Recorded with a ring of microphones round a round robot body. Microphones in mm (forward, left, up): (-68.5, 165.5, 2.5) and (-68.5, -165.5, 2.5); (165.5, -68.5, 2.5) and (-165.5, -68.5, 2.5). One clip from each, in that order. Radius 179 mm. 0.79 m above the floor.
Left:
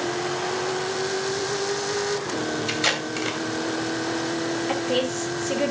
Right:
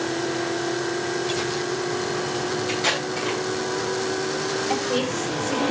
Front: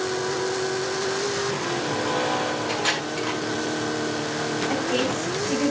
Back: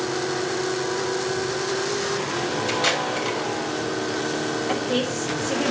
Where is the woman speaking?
135° left, 3.5 m.